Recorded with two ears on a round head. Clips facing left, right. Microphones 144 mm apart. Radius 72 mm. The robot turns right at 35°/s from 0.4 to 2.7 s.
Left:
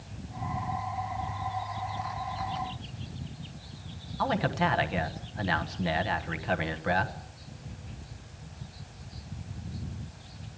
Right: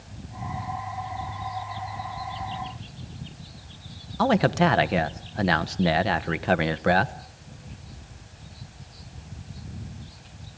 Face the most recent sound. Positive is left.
turn(degrees=-60)  # may be behind; listen again after turning